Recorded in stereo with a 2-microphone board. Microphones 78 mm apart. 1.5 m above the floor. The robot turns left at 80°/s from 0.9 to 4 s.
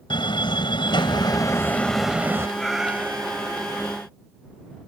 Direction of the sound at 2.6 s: 10° left.